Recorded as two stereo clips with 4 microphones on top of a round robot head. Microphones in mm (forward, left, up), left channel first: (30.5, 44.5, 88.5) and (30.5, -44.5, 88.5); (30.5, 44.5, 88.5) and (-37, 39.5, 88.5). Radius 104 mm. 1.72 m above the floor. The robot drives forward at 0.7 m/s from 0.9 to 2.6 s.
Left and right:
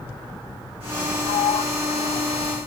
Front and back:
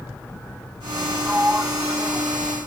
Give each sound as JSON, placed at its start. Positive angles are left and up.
{"t": 1.3, "sound": "a sliding door", "azimuth_deg": 110}